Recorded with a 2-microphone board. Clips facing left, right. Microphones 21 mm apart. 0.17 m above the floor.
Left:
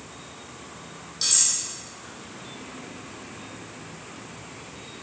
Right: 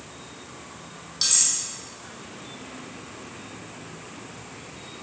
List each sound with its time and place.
1.2 s cutlery clinking: 20° right (ahead or behind), 4.5 m